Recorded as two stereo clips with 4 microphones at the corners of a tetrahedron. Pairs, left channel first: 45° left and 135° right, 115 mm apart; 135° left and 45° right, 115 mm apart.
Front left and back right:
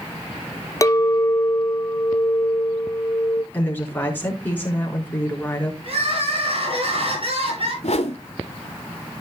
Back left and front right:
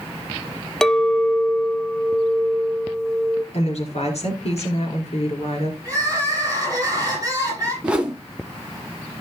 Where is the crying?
105° right, 9.5 m.